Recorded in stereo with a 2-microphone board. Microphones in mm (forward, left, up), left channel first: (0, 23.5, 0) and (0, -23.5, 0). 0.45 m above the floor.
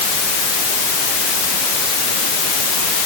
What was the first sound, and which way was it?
Only background noise.